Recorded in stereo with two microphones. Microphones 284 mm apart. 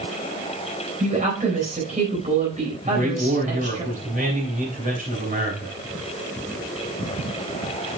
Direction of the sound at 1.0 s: 25° right (ahead or behind).